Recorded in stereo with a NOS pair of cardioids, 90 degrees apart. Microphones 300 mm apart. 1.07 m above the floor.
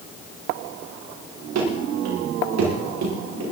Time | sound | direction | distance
1.6 | running footsteps | 60° right | 8 m